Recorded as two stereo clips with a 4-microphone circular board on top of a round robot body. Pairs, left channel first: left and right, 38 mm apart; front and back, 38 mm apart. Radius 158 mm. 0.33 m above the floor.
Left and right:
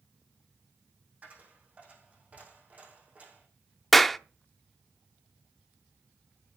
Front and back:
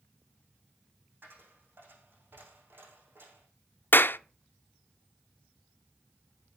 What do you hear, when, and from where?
1.2 s a dropped coin: 140° right, 5 m
3.9 s a clap: 5° left, 1.0 m